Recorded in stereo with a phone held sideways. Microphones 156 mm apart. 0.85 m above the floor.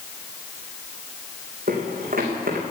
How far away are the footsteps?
About 3 m.